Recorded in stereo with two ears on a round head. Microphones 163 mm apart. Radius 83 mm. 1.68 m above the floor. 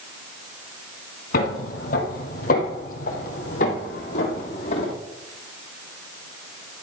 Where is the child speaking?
No child speaking in this recording.